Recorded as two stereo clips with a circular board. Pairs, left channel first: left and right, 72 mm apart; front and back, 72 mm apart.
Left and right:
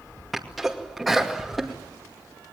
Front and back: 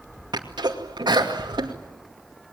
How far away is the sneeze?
About 2.5 m.